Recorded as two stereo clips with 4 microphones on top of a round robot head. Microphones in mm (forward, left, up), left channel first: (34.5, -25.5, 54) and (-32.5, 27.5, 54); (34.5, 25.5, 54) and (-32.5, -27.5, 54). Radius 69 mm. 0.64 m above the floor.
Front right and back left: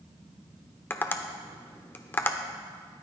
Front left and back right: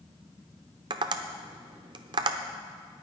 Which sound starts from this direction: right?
Tapping, at 0.9 s.